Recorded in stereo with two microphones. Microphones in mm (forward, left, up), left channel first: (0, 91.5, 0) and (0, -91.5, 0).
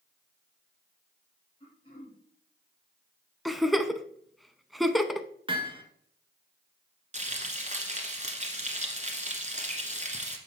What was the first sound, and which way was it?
Throat clearing, 25° left (ahead or behind).